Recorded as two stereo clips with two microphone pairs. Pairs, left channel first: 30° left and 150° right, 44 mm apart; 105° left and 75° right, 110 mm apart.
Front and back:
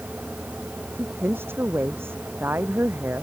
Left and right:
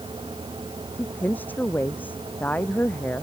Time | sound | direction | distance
0.9 | a woman speaking | 175° left | ?